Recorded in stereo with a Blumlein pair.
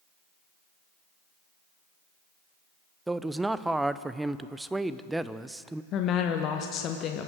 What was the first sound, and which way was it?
A man speaking, 5° right.